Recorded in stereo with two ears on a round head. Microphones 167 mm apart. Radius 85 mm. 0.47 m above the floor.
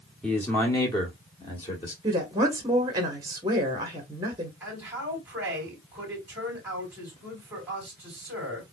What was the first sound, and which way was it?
A man speaking, 5° left (ahead or behind).